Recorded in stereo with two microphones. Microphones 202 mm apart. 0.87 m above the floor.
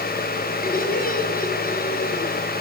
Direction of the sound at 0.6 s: 50° left (ahead or behind).